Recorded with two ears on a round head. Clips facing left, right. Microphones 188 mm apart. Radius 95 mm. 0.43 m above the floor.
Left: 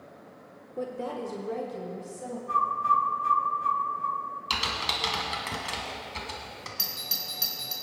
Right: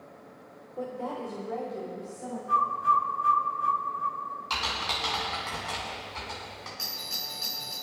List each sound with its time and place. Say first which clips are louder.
0.8 s a woman speaking: left 1 dB; 25° left (ahead or behind), 1.0 m; by 2.4 s 35° left (ahead or behind), 3 m
2.5 s a bird: right 1 dB; 5° right (ahead or behind), 0.6 m
4.5 s typing on a keyboard: left 1 dB; 40° left (ahead or behind), 2 m
6.8 s a doorbell: even; 50° left (ahead or behind), 3.5 m